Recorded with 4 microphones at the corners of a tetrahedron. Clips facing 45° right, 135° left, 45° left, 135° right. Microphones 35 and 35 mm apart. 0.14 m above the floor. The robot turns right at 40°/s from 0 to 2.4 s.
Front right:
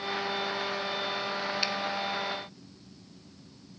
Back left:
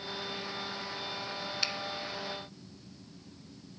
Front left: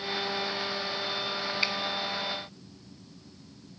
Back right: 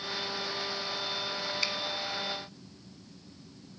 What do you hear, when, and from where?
1.6 s a finger snap: 20° left, 1.0 m; by 1.7 s 25° left, 1.0 m